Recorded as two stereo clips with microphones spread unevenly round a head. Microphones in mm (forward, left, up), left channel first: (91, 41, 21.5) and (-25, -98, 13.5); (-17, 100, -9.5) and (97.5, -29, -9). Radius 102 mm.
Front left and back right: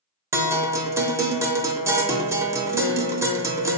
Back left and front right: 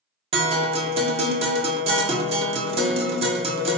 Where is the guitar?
70° right, 0.7 m.